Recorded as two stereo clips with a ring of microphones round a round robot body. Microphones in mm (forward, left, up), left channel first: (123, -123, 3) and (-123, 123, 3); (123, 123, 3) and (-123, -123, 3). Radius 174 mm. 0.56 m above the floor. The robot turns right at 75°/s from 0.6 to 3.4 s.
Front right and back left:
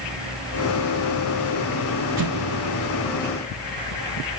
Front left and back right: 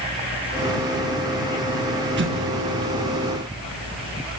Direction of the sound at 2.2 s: 165° left.